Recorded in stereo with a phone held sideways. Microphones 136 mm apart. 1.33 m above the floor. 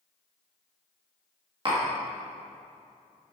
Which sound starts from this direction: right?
Tapping, at 1.6 s.